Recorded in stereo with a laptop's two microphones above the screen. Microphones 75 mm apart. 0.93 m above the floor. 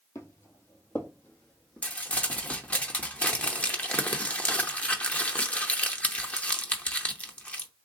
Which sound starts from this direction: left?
Footsteps, at 0.1 s.